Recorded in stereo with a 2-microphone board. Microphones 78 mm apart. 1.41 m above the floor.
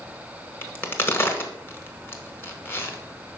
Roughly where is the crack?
Left.